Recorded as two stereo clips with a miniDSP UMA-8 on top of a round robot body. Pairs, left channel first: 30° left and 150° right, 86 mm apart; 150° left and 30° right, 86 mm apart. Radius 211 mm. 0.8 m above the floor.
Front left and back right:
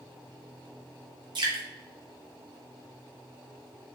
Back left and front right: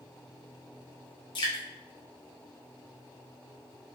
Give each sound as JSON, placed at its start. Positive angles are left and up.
{"t": 1.4, "sound": "dripping", "azimuth_deg": 175, "distance_m": 0.8}